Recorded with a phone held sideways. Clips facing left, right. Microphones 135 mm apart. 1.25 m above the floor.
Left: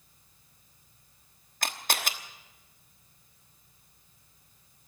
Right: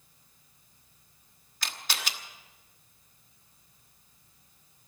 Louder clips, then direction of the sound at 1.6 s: Left 5 dB; 50° left (ahead or behind).